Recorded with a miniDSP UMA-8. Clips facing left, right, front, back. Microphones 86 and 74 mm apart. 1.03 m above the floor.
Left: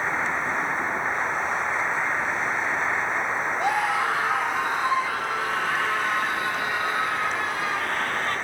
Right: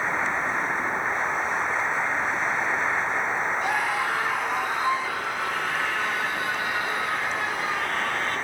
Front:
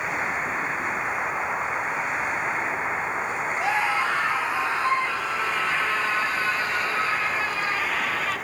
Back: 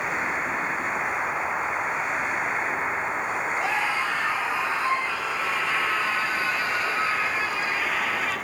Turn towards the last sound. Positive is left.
turn(degrees=100)